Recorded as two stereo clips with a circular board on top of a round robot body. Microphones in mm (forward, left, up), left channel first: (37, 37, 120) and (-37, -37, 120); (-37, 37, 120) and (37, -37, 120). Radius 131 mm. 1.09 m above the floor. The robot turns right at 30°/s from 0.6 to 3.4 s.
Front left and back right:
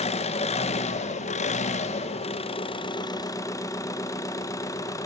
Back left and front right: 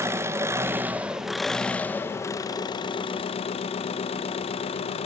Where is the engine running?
20° left, 0.7 m; by 5.1 s 105° left, 0.7 m.